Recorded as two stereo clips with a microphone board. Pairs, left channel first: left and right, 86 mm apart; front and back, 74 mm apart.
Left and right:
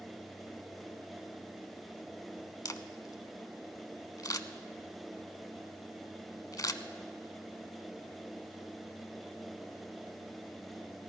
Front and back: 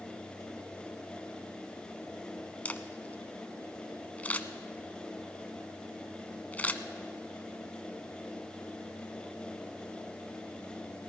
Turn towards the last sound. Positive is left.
turn(degrees=60)